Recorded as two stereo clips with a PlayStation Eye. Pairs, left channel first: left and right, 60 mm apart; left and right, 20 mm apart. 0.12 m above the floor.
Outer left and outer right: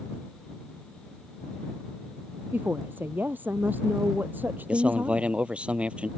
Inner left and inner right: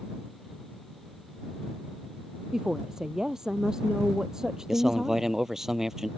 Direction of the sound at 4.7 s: 20° right (ahead or behind).